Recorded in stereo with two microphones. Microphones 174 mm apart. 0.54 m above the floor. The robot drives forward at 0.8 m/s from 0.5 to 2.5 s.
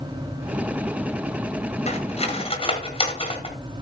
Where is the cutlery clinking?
40° left (ahead or behind), 2.5 m; by 3.5 s 35° left (ahead or behind), 3 m.